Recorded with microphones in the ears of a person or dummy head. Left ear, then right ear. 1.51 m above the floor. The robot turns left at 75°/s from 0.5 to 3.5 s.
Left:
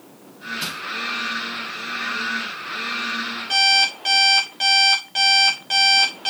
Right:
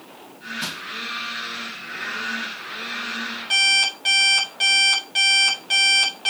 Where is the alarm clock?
5° right (ahead or behind), 2.0 m.